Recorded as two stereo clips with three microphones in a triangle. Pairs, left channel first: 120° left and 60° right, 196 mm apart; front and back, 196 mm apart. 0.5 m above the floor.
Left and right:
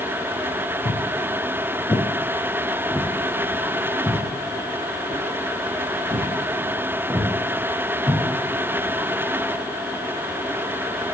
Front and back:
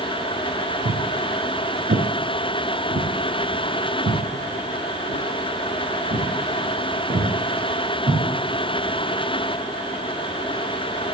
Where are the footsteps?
165° left, 1.4 m; by 8.2 s 135° right, 5 m.